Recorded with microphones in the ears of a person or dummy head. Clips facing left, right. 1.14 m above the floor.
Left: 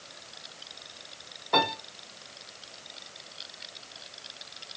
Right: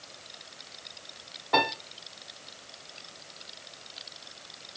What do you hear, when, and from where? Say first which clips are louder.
1.5 s a piano: even; 5° right (ahead or behind), 0.8 m